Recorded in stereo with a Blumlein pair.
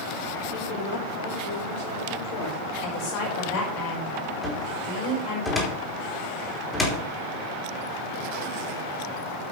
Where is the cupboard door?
5° left, 3.5 m.